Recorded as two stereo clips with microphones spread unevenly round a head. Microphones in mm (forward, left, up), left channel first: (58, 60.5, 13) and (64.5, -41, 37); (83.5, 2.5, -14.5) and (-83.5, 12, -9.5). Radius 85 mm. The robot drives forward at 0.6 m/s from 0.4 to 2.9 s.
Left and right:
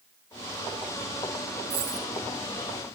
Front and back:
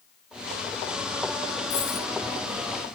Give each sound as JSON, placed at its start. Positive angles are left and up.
{"t": 1.7, "sound": "a dropped coin", "azimuth_deg": -65, "distance_m": 4.5}